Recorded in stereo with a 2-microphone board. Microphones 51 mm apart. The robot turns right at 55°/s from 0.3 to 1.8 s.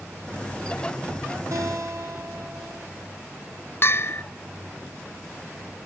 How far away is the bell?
About 0.5 m.